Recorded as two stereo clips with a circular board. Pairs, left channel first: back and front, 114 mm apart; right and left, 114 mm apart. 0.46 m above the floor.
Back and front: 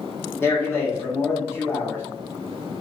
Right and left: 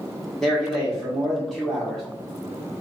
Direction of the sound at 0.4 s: 170° right.